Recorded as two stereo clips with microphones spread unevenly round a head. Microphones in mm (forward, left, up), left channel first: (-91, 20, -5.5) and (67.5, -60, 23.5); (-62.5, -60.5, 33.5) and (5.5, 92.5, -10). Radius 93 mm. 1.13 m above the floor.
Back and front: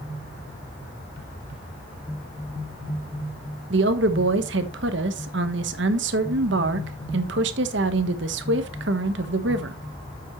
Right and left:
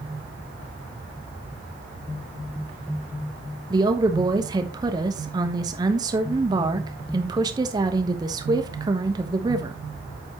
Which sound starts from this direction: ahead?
A woman speaking, at 3.7 s.